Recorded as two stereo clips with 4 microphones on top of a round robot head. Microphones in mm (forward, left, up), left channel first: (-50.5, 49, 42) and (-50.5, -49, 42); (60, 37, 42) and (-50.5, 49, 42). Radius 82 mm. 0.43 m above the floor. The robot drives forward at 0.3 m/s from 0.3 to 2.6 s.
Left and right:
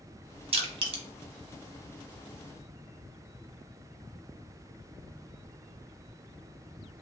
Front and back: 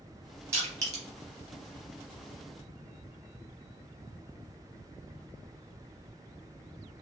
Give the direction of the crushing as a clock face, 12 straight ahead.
4 o'clock.